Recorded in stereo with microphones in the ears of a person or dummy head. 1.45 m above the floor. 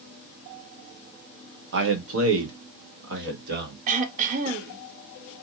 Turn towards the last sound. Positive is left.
turn(degrees=-40)  # may be behind; listen again after turning